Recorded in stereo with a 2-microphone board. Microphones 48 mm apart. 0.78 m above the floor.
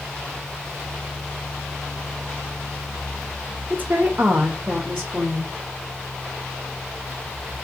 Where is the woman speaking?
40° right (ahead or behind), 0.5 m; by 5.5 s 30° right (ahead or behind), 1.2 m.